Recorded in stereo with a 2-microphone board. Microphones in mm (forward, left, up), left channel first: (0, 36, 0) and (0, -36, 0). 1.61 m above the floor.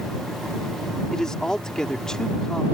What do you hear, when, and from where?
1.1 s a man speaking: 10° left (ahead or behind)